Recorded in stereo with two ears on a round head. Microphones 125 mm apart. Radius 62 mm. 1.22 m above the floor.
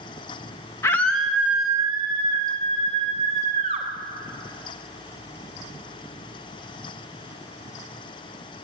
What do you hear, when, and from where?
0.8 s a scream: 20° left (ahead or behind), 1.0 m; by 3.9 s 60° right (ahead or behind), 3 m